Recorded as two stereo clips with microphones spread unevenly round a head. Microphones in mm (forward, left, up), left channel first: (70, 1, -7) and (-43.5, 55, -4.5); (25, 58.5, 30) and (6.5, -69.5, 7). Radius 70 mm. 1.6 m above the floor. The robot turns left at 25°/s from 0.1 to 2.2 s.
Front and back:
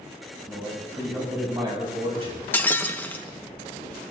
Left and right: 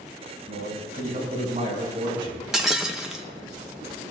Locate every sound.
0.5 s a man speaking: 110° right, 6 m; by 2.4 s 155° right, 6 m
2.5 s breaking glass: 15° left, 0.9 m